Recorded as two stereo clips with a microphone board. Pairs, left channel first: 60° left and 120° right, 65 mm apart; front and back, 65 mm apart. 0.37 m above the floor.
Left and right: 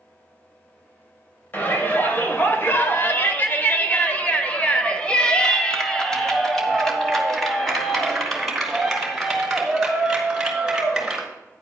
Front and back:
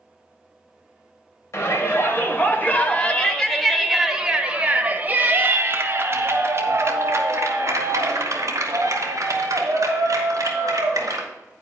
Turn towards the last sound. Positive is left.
turn(degrees=155)